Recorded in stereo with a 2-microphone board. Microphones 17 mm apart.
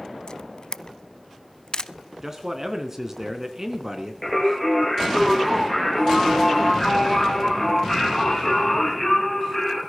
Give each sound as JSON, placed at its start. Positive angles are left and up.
{"t": 0.3, "sound": "a camera shutter", "side_deg": 40, "distance_m": 0.6}
{"t": 2.2, "sound": "a man speaking", "side_deg": -25, "distance_m": 3.0}
{"t": 4.2, "sound": "singing", "side_deg": 10, "distance_m": 7.0}